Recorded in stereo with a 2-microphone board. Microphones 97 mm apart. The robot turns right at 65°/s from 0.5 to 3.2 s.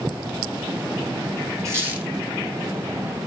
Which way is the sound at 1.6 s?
30° right (ahead or behind).